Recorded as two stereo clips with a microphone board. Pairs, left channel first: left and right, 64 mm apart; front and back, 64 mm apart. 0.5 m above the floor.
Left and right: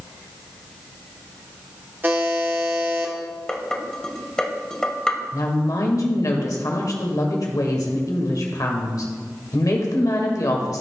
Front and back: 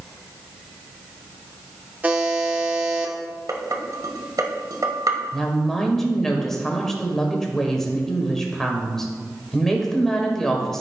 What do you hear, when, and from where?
2.0 s a buzzer: 125° right, 1.3 m
3.5 s dishes clattering: 170° left, 1.3 m
5.3 s a woman speaking: 85° left, 1.7 m